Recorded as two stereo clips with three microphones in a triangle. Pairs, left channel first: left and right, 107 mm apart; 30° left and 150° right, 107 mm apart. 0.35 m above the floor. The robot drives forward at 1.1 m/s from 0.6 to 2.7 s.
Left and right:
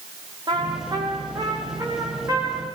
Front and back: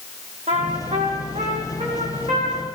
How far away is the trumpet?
About 2.5 m.